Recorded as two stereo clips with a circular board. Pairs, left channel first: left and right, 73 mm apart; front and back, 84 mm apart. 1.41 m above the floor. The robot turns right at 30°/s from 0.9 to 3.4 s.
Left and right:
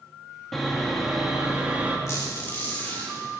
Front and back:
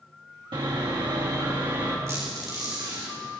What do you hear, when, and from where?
0.5 s sawing: 175° left, 1.6 m; by 2.0 s 150° right, 1.6 m
2.1 s a squeak: 130° left, 2.5 m; by 3.1 s 160° left, 2.5 m